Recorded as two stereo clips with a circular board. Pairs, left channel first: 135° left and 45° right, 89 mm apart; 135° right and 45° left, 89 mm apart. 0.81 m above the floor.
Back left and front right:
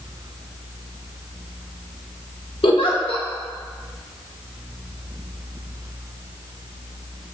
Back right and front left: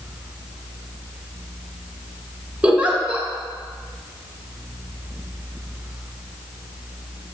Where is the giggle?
120° left, 0.6 m.